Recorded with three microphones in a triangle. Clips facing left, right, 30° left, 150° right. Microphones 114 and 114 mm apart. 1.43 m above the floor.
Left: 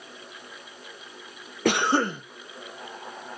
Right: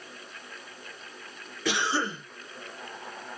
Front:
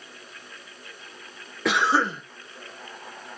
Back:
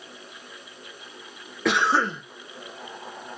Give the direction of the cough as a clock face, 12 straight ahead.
8 o'clock.